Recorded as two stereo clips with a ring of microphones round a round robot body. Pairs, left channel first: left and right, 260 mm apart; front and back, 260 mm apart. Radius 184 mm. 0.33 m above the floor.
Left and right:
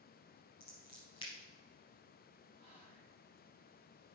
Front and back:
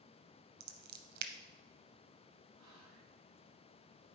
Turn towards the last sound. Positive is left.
turn(degrees=-165)